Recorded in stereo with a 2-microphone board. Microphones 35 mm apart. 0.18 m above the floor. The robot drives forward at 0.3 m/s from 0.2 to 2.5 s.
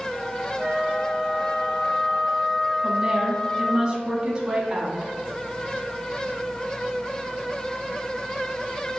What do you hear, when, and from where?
0.6 s a flute: 30° right (ahead or behind), 1.5 m; by 3.8 s 20° right (ahead or behind), 2.0 m
2.8 s a woman speaking: 25° right (ahead or behind), 1.0 m